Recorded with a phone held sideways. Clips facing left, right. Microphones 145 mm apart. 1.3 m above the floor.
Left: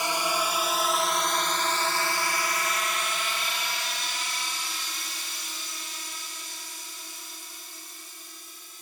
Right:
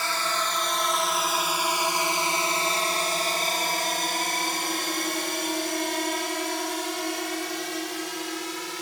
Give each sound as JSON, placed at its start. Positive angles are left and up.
{"t": 0.0, "sound": "a drone", "side_deg": 15}